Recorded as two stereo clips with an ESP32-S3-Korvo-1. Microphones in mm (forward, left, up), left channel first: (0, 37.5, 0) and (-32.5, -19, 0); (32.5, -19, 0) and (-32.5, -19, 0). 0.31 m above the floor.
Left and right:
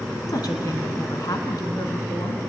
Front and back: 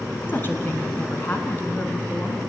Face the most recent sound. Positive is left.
turn(degrees=55)